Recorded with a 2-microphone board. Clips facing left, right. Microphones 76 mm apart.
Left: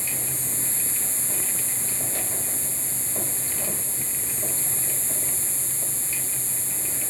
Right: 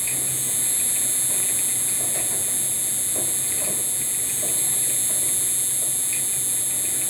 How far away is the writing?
I don't hear writing.